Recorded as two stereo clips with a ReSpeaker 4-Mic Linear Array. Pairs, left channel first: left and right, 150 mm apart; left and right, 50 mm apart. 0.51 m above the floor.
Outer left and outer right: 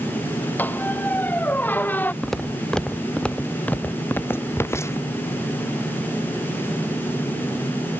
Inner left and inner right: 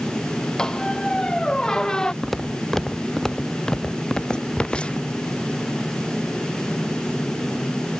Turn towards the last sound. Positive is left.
turn(degrees=20)  # may be behind; listen again after turning